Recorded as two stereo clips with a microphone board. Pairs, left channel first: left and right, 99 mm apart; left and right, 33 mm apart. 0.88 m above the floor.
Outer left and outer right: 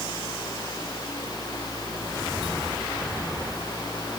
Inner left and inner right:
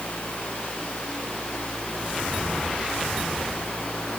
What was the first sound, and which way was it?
Only background noise.